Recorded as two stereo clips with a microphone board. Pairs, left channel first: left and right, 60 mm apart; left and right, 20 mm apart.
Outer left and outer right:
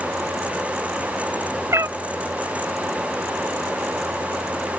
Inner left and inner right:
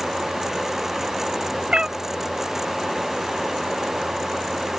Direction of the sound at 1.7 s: 50° right (ahead or behind).